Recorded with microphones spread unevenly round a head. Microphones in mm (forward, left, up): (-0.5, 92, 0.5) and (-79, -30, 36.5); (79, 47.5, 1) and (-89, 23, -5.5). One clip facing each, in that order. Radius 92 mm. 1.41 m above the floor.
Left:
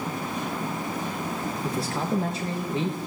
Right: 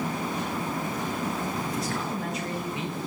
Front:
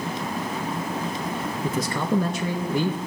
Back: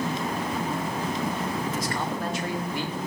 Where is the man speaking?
5° right, 2 m.